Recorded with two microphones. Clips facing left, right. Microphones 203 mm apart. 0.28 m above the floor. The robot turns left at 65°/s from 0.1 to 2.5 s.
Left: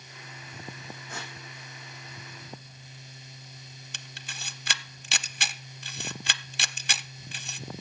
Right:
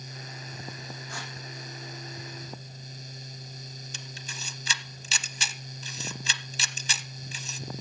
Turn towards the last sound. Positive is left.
turn(degrees=65)  # may be behind; listen again after turning